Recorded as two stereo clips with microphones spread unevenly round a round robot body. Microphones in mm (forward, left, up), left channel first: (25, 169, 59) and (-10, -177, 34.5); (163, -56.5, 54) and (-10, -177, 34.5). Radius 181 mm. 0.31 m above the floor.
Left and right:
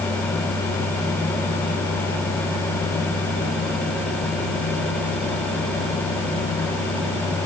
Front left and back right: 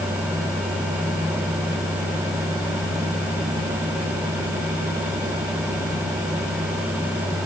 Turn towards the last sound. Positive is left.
No sound to turn to.